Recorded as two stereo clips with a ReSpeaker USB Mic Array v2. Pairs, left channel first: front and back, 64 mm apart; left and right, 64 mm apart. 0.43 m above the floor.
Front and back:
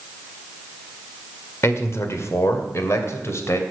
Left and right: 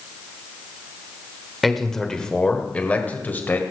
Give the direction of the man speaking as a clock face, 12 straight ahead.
12 o'clock.